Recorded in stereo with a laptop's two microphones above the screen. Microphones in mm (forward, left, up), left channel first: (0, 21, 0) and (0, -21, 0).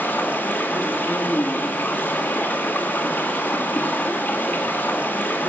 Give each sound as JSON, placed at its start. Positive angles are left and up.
{"t": 0.0, "sound": "running water", "side_deg": 50, "distance_m": 1.4}